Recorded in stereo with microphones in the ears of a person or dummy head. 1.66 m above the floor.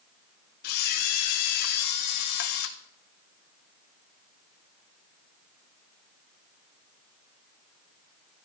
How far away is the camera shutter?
About 1.0 m.